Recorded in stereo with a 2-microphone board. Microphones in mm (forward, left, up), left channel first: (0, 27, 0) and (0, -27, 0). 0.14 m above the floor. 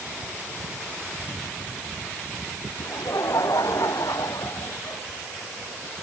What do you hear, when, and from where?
2.8 s laughter: 85° left; by 5.0 s 75° left (ahead or behind)